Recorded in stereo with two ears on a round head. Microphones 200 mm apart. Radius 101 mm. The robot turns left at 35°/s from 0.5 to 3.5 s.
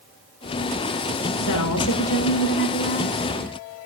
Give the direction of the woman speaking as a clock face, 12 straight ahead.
9 o'clock.